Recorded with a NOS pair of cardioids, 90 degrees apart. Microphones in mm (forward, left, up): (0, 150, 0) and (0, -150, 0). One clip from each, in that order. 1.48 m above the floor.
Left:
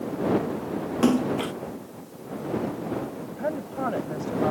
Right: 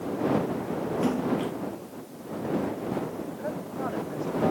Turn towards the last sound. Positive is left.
turn(degrees=45)